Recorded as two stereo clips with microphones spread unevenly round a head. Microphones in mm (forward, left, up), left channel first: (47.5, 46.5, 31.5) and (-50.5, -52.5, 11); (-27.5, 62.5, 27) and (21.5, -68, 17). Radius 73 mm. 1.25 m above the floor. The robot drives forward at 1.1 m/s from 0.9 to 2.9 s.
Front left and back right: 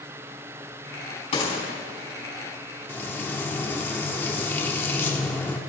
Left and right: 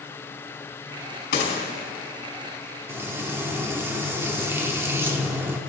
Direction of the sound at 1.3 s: 95° left.